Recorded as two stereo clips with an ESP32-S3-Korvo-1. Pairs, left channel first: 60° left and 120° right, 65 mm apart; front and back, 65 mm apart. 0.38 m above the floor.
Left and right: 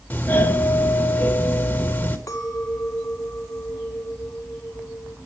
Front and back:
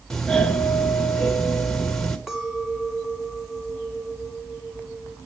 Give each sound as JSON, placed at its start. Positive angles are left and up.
{"t": 0.1, "sound": "a doorbell", "azimuth_deg": 70, "distance_m": 1.5}
{"t": 2.3, "sound": "a clink", "azimuth_deg": 95, "distance_m": 2.0}